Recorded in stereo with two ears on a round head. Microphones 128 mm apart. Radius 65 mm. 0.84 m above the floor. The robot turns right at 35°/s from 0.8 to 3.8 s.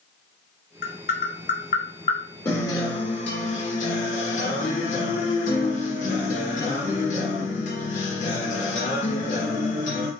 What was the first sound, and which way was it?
Tapping, 75° left (ahead or behind).